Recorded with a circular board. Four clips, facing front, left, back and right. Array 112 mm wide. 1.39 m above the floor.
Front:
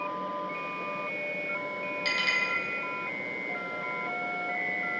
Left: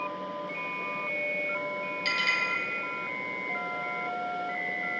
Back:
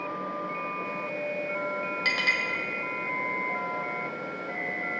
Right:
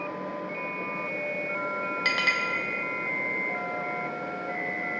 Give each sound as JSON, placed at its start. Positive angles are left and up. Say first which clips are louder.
{"t": 2.0, "sound": "a clink", "louder": "right 2 dB, back 1 dB", "azimuth_deg": -120, "distance_m": 1.4}